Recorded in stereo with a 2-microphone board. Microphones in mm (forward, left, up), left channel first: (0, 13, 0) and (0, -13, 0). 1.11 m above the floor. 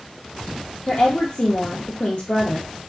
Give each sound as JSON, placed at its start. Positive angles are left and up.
{"t": 0.9, "sound": "a woman speaking", "side_deg": 55, "distance_m": 0.5}